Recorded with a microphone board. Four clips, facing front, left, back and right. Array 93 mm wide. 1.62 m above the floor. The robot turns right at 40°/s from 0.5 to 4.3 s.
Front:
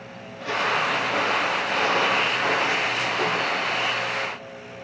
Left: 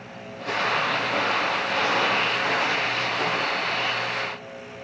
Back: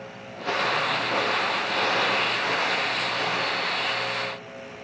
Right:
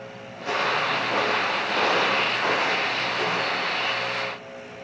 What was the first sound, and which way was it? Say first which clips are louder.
Footsteps: even, front 1 dB; 165° right.